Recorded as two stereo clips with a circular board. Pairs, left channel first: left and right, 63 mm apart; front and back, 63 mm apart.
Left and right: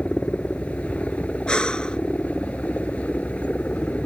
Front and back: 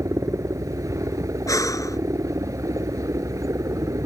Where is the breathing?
15° left.